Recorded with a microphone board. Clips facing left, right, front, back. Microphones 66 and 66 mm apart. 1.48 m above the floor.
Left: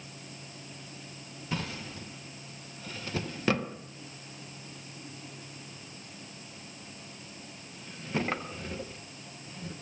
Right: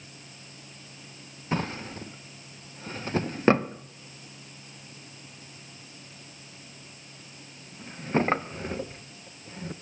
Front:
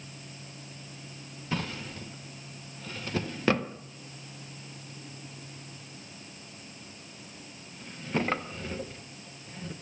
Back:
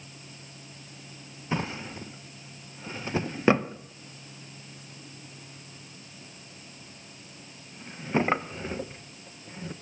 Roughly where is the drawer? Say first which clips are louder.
Right 6 dB, back 3 dB; behind right.